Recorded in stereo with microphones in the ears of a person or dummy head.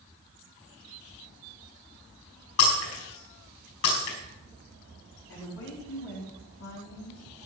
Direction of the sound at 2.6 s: 75° left (ahead or behind).